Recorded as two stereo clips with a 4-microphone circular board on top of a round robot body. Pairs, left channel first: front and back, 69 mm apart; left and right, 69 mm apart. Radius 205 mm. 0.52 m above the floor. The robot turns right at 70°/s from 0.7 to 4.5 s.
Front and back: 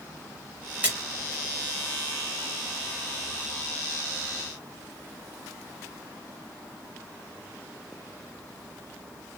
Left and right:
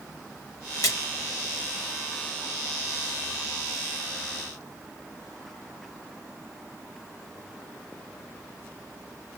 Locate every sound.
0.8 s a splash: 115° left, 3.5 m; by 1.0 s 125° left, 3.5 m